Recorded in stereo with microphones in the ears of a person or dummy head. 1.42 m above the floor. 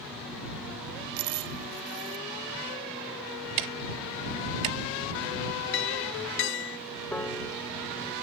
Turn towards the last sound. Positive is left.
turn(degrees=10)  # may be behind; listen again after turning